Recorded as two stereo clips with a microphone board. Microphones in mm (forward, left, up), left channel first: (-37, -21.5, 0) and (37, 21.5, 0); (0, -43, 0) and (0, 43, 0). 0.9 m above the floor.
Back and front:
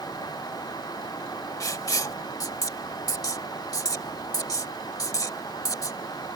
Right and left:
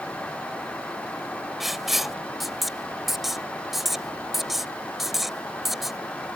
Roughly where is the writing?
Behind.